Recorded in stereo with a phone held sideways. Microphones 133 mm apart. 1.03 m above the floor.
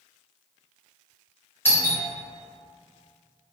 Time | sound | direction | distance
1.6 | a doorbell | 20° left (ahead or behind) | 0.9 m